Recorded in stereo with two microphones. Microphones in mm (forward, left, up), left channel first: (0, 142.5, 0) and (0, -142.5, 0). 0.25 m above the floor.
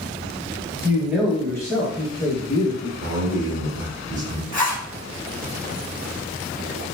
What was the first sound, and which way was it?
A man speaking, 10° right (ahead or behind).